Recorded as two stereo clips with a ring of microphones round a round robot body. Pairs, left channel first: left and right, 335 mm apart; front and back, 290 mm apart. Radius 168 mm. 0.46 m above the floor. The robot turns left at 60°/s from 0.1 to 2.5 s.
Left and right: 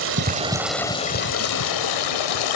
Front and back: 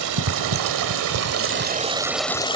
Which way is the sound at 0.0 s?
145° right.